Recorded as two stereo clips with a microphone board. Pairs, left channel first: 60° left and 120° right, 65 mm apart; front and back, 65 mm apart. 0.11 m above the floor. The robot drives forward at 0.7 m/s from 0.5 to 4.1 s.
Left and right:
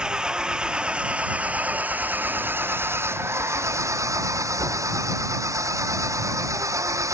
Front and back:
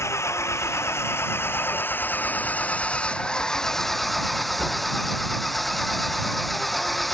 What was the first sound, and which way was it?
An engine running, 45° right.